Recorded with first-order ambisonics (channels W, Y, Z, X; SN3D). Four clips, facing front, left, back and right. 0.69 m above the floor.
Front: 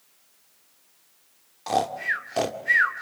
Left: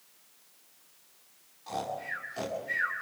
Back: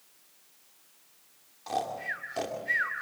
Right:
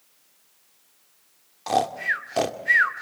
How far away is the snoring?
About 2 m.